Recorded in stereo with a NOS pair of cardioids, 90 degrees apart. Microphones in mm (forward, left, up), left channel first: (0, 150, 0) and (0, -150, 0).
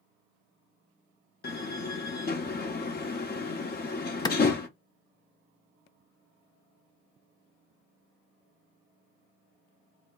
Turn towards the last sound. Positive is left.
turn(degrees=15)